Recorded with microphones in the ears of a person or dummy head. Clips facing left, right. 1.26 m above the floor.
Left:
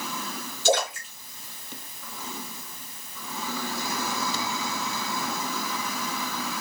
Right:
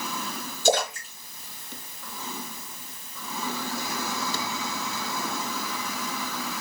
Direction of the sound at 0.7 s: 40° right (ahead or behind).